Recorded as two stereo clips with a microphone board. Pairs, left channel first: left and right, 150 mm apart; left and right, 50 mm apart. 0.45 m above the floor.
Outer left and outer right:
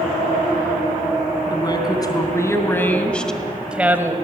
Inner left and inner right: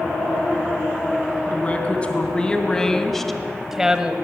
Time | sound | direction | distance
1.5 | a woman speaking | 30° left (ahead or behind) | 3.5 m